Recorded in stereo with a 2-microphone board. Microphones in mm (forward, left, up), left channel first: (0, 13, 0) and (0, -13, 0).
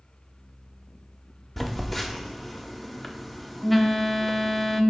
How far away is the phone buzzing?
About 0.7 m.